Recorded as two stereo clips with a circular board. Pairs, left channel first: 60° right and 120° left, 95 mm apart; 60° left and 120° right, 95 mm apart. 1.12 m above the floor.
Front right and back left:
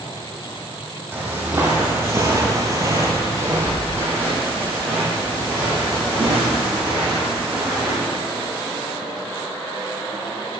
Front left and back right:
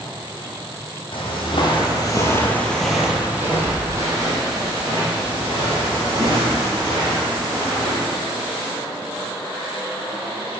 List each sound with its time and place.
1.1 s footsteps: 45° left, 2 m; by 8.1 s 160° right, 6.5 m